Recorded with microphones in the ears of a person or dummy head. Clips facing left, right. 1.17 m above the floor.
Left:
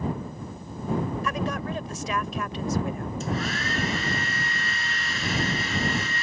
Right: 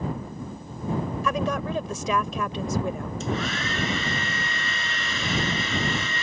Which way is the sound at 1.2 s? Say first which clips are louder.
Right 3 dB; 70° right (ahead or behind).